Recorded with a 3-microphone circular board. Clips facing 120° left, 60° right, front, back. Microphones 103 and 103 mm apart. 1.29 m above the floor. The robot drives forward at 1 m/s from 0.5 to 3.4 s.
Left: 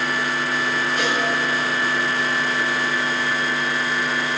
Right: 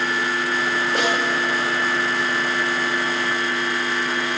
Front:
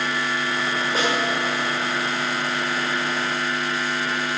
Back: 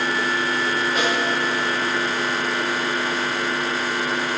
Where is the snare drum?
55° right, 6 m.